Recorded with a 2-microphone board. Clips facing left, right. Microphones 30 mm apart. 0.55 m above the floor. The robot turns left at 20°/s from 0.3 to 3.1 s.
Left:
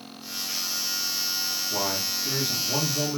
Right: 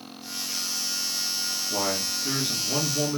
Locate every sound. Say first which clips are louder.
1.7 s a man speaking: right 2 dB; 35° right (ahead or behind), 1.7 m; by 3.2 s 20° right (ahead or behind), 1.7 m